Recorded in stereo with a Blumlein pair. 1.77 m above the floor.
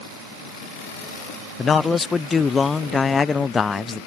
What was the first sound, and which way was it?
A man speaking, 15° left.